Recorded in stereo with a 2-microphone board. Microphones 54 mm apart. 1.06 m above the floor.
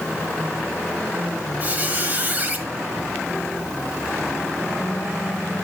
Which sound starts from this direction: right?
A squeak, at 1.6 s.